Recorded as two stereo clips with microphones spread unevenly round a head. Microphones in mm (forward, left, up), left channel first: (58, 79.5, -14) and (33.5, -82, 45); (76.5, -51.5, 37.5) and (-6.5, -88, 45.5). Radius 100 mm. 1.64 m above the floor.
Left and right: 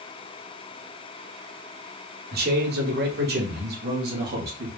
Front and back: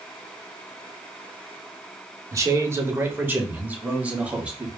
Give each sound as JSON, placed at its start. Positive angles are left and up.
{"t": 2.3, "sound": "a man speaking", "azimuth_deg": -105, "distance_m": 1.3}